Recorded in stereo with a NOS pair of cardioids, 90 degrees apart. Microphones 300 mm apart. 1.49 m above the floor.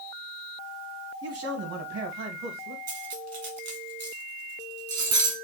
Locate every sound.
1.2 s a man speaking: 50° right, 1.4 m; by 2.8 s 65° right, 2 m
2.9 s cutlery clinking: 55° right, 1.7 m